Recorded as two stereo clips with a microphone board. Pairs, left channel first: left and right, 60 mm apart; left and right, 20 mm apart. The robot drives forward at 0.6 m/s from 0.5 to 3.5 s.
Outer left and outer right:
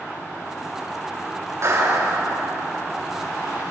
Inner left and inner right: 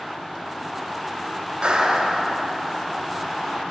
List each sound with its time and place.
1.6 s a clap: 50° right (ahead or behind), 2.5 m; by 2.5 s 60° right (ahead or behind), 2.5 m